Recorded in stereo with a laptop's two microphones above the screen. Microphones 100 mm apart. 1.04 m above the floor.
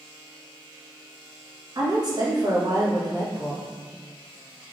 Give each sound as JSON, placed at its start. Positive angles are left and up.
{"t": 1.8, "sound": "a woman speaking", "side_deg": -45, "distance_m": 1.3}